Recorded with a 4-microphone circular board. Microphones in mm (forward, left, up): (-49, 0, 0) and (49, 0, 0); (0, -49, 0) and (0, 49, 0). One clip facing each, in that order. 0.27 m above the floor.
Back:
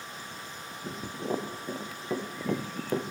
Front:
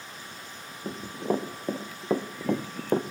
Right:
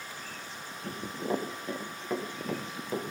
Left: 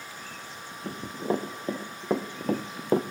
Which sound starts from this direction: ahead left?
Running footsteps, at 0.8 s.